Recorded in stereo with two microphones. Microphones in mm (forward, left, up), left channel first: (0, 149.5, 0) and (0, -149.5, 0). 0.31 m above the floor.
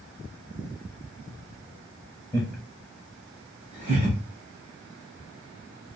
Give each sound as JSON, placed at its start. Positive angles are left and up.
{"t": 2.3, "sound": "laughter", "side_deg": 10, "distance_m": 1.0}